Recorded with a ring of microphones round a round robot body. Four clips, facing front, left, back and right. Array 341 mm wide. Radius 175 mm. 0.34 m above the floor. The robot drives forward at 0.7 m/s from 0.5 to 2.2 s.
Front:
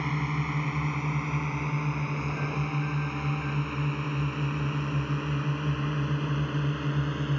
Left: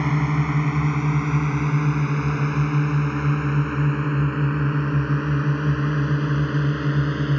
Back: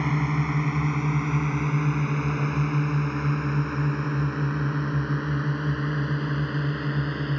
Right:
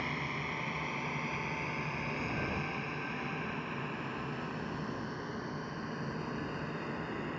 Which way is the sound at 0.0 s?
110° left.